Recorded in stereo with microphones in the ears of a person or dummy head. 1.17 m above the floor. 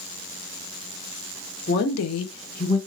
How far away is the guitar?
I don't hear a guitar.